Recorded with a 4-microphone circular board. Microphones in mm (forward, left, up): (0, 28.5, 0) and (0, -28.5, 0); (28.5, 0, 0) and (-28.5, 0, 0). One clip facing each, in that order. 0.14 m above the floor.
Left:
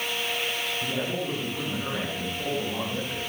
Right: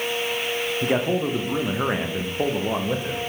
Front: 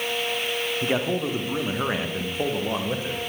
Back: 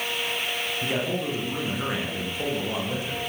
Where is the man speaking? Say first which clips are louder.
Right 10 dB, front 3 dB; 65° right, 8 m.